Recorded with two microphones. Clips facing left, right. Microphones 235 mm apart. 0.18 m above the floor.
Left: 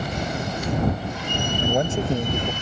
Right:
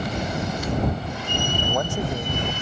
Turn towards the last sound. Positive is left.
turn(degrees=20)  # may be behind; listen again after turning